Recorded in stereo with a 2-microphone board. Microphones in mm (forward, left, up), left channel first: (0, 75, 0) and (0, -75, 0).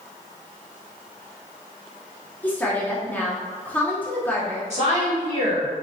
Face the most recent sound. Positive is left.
turn(degrees=-45)  # may be behind; listen again after turning